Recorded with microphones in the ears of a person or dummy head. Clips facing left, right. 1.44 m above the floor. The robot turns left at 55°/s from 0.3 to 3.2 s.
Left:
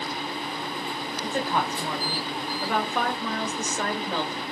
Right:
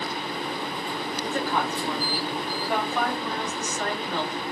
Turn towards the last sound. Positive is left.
turn(degrees=60)